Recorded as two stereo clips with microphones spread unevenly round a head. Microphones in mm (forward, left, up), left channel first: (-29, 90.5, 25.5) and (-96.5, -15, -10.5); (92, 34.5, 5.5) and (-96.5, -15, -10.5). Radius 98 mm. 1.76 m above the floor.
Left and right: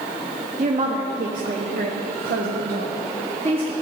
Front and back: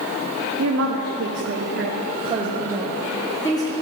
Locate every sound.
0.6 s a woman speaking: 150° right, 1.3 m; by 3.7 s 50° right, 1.0 m